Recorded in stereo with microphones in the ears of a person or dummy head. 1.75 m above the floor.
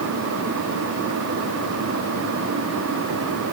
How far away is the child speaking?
No child speaking in this recording.